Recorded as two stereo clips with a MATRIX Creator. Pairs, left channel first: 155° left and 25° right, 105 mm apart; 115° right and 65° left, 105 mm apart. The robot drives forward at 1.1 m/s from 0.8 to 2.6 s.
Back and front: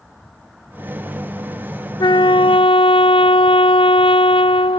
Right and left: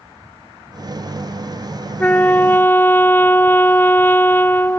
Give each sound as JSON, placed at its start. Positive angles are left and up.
{"t": 2.0, "sound": "a trumpet", "azimuth_deg": 180}